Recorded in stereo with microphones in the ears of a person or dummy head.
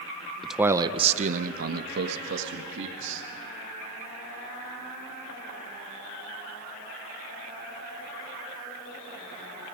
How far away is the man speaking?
About 0.6 m.